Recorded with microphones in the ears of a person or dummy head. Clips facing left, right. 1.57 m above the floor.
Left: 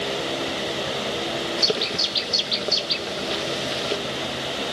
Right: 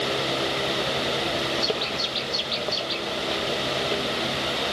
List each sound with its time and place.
1.6 s a bird: 35° left (ahead or behind)